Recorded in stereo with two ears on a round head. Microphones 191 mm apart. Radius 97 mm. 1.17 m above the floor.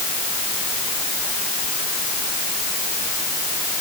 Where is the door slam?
I don't hear a door slam.